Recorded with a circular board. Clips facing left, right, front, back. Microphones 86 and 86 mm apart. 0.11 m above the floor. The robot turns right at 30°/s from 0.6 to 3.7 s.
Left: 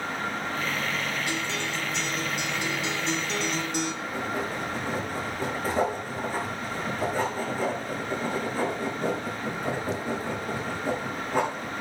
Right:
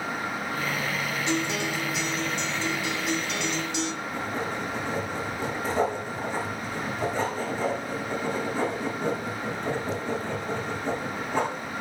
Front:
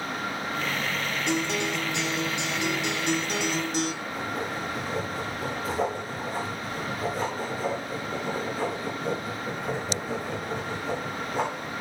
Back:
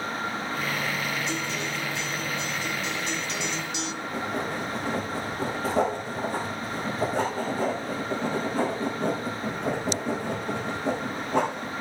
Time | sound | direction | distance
1.3 | a guitar | 25° right | 2.5 m
4.0 | writing | 170° left | 6.5 m